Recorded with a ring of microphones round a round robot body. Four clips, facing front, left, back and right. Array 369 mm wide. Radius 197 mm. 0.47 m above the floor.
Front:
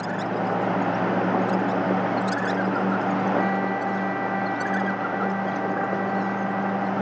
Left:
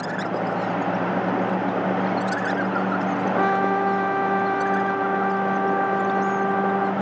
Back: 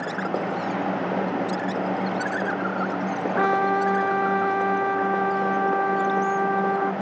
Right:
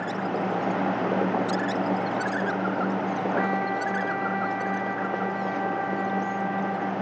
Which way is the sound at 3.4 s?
135° left.